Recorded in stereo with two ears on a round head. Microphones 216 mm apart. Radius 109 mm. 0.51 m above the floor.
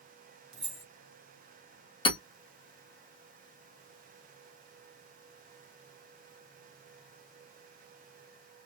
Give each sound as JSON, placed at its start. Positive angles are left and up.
{"t": 0.5, "sound": "keys jangling", "side_deg": -25, "distance_m": 1.5}
{"t": 2.0, "sound": "hammering", "side_deg": 25, "distance_m": 1.8}